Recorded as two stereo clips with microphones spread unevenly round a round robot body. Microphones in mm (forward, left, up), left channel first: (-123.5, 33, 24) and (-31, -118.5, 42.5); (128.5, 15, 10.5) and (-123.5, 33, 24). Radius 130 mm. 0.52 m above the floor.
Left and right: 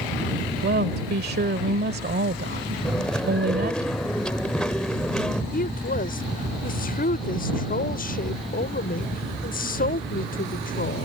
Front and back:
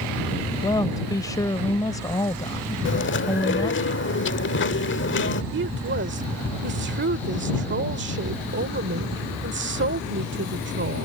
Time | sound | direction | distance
0.6 | a woman speaking | 80° right | ?
2.9 | chewing | 35° left | ?
5.5 | a woman speaking | 140° left | ?